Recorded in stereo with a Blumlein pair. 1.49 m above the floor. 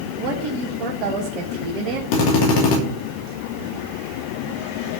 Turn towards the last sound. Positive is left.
turn(degrees=45)